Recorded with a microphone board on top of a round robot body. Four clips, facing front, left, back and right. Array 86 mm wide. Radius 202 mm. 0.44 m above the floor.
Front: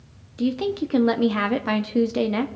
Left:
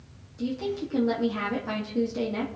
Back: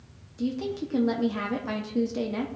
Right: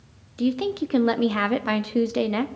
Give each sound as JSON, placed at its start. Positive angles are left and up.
{"t": 0.4, "sound": "a woman speaking", "azimuth_deg": -55, "distance_m": 0.9}